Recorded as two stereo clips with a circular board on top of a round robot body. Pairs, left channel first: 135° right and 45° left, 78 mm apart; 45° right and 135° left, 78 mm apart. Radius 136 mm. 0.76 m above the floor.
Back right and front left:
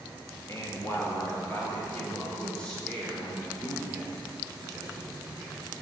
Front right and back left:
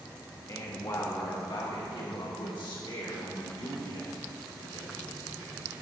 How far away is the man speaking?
About 1.6 m.